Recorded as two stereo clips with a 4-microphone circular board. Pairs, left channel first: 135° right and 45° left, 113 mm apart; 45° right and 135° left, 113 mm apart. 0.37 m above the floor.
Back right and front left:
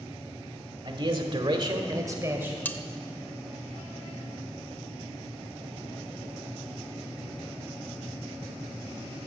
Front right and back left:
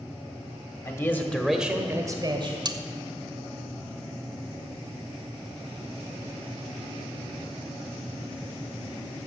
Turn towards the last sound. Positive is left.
turn(degrees=160)